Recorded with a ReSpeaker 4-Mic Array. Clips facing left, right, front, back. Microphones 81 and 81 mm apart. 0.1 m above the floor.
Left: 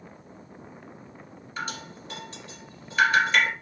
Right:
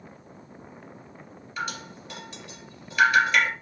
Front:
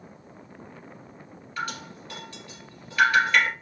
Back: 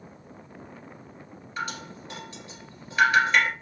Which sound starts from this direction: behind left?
Dripping, at 1.6 s.